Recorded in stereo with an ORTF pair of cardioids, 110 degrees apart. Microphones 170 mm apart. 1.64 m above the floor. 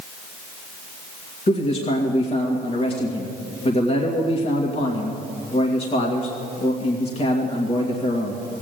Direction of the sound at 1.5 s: 35° left.